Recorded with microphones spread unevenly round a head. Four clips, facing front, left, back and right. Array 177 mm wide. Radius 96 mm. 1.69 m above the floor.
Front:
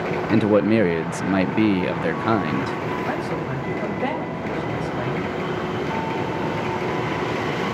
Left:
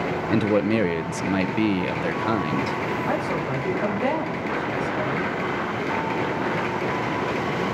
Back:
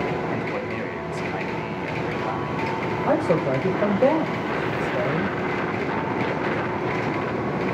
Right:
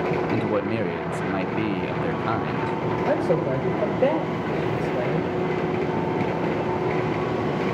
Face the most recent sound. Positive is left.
turn(degrees=-140)